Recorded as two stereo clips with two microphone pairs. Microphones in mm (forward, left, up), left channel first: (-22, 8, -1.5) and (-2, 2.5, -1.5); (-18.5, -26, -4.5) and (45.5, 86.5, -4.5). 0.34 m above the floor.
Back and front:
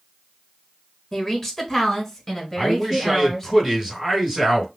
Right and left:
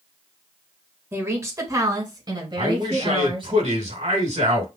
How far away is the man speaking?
About 2.5 m.